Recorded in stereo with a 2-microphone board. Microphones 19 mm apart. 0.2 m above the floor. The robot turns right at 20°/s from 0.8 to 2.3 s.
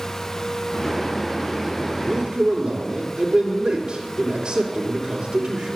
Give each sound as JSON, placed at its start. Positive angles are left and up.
{"t": 2.0, "sound": "a man speaking", "side_deg": -55, "distance_m": 4.0}